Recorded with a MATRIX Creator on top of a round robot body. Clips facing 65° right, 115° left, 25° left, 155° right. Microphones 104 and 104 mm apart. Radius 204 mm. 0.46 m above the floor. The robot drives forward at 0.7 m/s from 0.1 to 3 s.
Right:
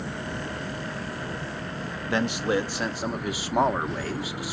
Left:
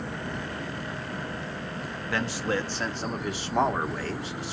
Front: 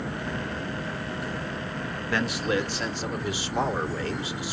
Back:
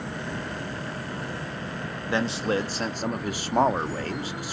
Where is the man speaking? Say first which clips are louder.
Right 4 dB, back 1 dB; 110° right, 1.1 m; by 4.5 s 150° right, 1.4 m.